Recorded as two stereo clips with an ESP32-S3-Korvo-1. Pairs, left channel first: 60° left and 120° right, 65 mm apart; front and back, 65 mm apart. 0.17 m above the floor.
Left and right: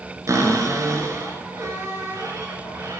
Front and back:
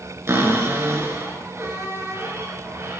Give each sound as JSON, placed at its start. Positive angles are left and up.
{"t": 0.3, "sound": "a cupboard door", "azimuth_deg": -140, "distance_m": 2.0}